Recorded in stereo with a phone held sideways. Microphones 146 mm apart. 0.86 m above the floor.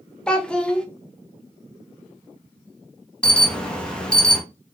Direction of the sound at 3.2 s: 5° left (ahead or behind).